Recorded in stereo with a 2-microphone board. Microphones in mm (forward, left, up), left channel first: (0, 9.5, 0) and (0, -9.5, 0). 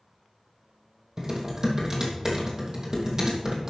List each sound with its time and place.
1.2 s typing on a keyboard: 35° right (ahead or behind), 3 m